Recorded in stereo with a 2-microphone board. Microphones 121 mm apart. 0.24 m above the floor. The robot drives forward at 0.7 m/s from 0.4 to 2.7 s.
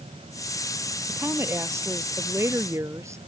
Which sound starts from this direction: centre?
A woman speaking, at 1.1 s.